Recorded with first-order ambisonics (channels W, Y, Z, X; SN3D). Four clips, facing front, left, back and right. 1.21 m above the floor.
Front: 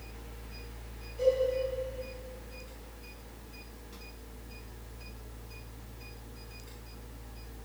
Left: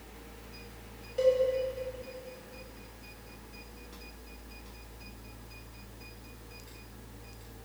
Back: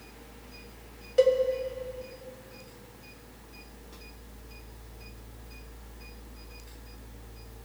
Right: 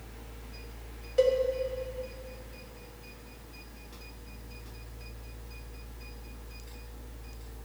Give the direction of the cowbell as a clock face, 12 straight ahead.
5 o'clock.